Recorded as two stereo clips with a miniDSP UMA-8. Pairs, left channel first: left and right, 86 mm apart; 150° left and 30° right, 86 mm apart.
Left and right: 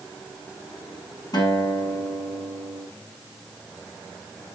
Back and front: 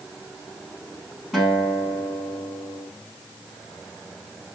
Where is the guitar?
55° left, 3.5 m.